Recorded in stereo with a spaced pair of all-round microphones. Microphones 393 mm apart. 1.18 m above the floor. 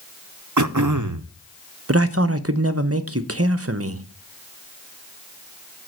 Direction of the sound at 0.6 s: 50° right (ahead or behind).